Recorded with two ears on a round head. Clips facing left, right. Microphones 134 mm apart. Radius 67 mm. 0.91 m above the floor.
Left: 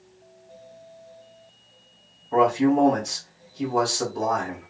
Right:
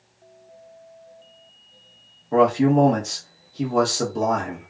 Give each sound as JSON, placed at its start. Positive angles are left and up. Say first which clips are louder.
{"t": 2.3, "sound": "a man speaking", "louder": "right 2 dB", "side_deg": -50, "distance_m": 1.1}